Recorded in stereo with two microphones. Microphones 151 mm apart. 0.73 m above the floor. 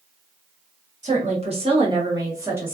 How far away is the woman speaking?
About 1.2 m.